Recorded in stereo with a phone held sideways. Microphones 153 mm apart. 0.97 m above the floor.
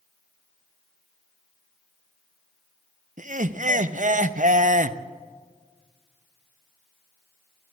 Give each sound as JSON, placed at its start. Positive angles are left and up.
{"t": 3.2, "sound": "laughter", "side_deg": -55, "distance_m": 0.6}